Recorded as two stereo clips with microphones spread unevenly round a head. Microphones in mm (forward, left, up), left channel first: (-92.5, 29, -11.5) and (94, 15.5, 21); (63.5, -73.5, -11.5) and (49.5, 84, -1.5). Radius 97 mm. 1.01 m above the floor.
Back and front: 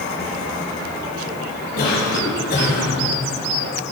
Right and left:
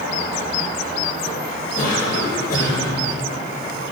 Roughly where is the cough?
Behind right.